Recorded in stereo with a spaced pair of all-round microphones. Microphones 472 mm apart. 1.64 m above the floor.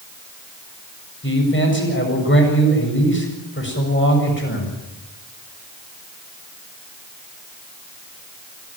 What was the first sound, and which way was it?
A man speaking, 25° left (ahead or behind).